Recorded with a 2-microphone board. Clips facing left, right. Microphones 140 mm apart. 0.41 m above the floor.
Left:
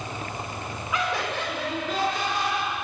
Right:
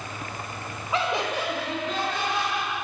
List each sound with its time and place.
0.9 s laughter: 30° right (ahead or behind), 0.9 m; by 2.8 s 20° left (ahead or behind), 1.8 m